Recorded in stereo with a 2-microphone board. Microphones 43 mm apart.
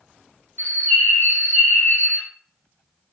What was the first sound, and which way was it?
A bird, 55° left (ahead or behind).